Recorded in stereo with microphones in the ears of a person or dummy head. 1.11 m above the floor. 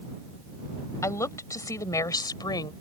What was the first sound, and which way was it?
A woman speaking, 15° left (ahead or behind).